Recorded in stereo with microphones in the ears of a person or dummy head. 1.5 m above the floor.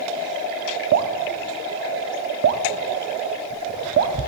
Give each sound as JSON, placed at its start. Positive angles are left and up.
{"t": 0.9, "sound": "dripping", "side_deg": -60, "distance_m": 0.6}